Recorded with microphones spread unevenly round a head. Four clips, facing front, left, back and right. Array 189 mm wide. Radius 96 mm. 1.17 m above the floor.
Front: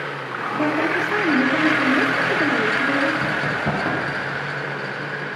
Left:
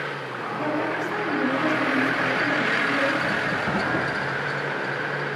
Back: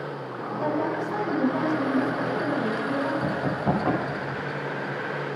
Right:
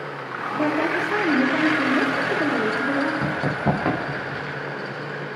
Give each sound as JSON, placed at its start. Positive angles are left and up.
{"t": 0.6, "sound": "a woman speaking", "azimuth_deg": -40, "distance_m": 3.0}
{"t": 3.2, "sound": "running footsteps", "azimuth_deg": -65, "distance_m": 7.5}